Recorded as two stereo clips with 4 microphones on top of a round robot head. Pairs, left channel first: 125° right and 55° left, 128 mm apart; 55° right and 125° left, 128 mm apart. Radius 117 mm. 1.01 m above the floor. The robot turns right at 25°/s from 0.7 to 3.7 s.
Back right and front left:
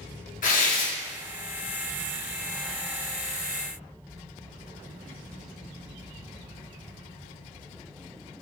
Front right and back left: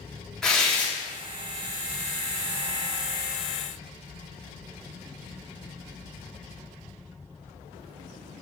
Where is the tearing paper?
145° right, 1.4 m; by 0.9 s 135° right, 1.4 m.